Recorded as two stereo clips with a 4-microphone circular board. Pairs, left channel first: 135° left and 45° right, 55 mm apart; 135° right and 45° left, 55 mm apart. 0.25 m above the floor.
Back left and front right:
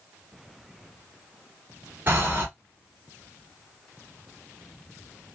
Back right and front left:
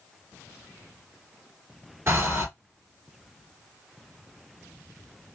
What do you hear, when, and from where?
2.1 s breathing: 5° left, 1.6 m